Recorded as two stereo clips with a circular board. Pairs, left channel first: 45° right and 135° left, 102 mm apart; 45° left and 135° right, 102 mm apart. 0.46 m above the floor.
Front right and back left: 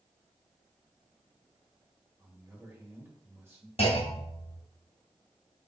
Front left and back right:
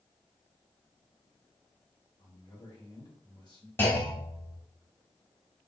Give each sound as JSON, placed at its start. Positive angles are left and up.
{"t": 2.2, "sound": "a man speaking", "azimuth_deg": 70, "distance_m": 2.5}
{"t": 3.8, "sound": "a clunk", "azimuth_deg": -25, "distance_m": 1.7}